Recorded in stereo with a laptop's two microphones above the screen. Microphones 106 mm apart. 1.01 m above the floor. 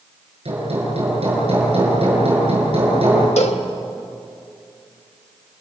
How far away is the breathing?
No breathing in this recording.